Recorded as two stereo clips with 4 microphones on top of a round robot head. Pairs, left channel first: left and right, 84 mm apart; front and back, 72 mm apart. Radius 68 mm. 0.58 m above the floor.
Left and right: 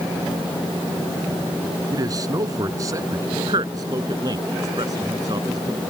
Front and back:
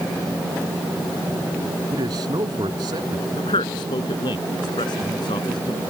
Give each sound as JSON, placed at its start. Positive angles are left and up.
{"t": 1.9, "sound": "a man speaking", "azimuth_deg": -135}
{"t": 3.4, "sound": "a man speaking", "azimuth_deg": -35}